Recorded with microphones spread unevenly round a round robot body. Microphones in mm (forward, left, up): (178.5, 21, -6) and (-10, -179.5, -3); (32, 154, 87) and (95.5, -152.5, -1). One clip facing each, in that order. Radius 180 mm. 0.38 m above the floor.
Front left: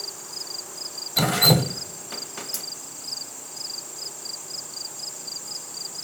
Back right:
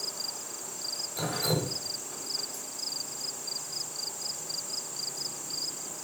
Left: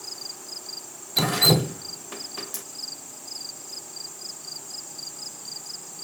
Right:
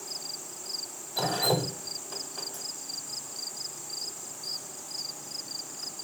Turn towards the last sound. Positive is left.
turn(degrees=50)